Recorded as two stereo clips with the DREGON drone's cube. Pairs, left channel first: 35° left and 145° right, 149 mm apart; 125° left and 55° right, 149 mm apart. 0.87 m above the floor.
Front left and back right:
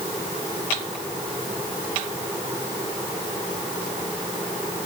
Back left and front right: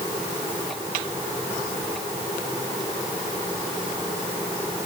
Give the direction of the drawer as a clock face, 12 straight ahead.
No drawer in this recording.